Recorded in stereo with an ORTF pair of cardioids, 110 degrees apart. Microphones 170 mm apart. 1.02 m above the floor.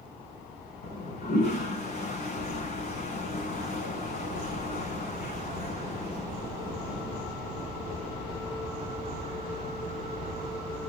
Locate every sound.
0.8 s a toilet flushing: 60° left, 4.5 m